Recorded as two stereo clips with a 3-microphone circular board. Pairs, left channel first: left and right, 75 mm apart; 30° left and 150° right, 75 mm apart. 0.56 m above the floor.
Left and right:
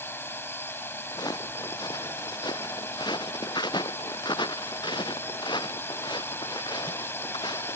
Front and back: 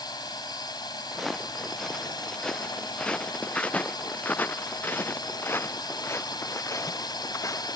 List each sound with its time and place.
0.0 s a drone: 35° left
1.1 s footsteps: 120° left; by 7.8 s 75° left